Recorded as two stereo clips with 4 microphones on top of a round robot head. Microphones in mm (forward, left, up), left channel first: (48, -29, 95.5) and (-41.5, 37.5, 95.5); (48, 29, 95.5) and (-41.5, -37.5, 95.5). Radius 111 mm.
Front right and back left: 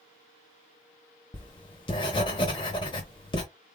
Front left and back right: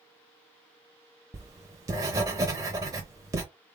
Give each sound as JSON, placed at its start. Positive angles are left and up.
{"t": 1.3, "sound": "writing", "azimuth_deg": -85, "distance_m": 0.7}